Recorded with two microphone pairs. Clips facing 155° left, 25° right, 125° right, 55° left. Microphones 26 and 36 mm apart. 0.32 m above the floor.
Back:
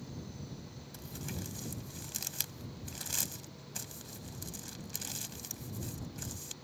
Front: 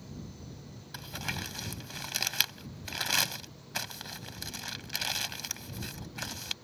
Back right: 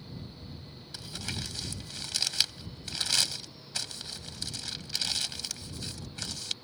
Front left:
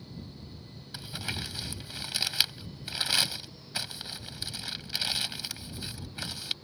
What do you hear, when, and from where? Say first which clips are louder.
0.9 s crumpling: front 7 dB, front left 2 dB; 15° right